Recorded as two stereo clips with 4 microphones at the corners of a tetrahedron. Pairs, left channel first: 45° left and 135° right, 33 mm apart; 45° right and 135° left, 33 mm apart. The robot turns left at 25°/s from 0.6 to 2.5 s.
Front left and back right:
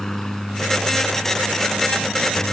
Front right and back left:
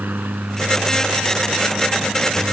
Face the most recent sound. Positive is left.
turn(degrees=60)